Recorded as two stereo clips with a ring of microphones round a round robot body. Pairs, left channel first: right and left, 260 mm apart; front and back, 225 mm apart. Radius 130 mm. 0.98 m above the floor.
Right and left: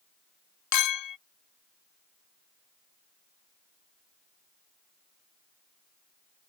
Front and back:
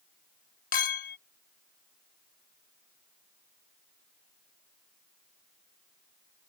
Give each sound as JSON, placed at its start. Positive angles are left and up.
{"t": 0.7, "sound": "a clink", "azimuth_deg": -65}